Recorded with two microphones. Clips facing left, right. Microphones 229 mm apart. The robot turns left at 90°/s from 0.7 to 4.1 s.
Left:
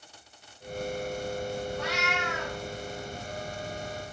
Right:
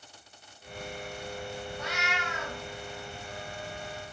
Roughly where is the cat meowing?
Left.